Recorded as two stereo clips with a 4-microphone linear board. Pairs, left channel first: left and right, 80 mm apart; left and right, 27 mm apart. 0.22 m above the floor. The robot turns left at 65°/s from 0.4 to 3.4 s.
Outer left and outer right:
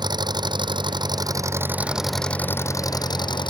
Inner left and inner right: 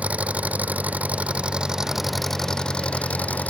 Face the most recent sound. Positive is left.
turn(degrees=95)